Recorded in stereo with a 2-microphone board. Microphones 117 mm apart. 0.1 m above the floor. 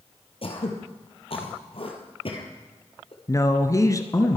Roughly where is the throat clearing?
Left.